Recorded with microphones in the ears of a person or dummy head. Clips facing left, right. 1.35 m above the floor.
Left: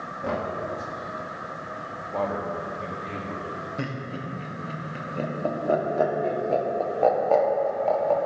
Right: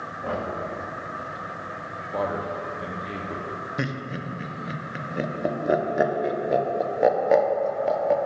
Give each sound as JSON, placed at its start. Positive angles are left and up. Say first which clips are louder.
{"t": 0.2, "sound": "knocking", "louder": "left 1 dB", "side_deg": 25, "distance_m": 1.2}
{"t": 2.1, "sound": "a man speaking", "louder": "even", "side_deg": -15, "distance_m": 0.6}
{"t": 3.8, "sound": "laughter", "louder": "right 3 dB", "side_deg": -20, "distance_m": 0.6}